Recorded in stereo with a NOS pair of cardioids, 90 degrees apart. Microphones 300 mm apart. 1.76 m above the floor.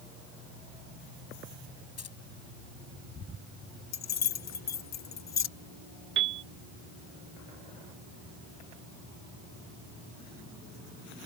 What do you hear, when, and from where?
2.0 s keys jangling: 55° left
3.9 s keys jangling: 65° left
6.2 s a piano: 45° right